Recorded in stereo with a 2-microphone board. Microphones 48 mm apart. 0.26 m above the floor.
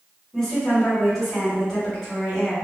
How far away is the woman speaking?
About 1.2 m.